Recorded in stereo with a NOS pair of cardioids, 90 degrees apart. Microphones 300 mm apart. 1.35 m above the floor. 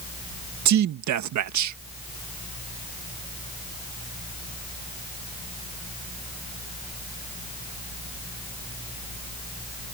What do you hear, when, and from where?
0.7 s a man speaking: 70° right